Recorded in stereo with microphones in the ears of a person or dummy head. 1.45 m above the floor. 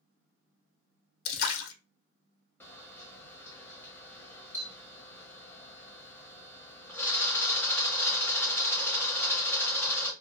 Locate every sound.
1.2 s a splash: 75° left (ahead or behind), 0.5 m
2.6 s a camera shutter: 10° left (ahead or behind), 0.7 m